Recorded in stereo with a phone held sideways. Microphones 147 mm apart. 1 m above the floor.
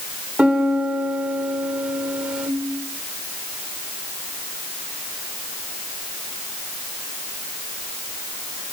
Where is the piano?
10° right (ahead or behind), 1.9 m.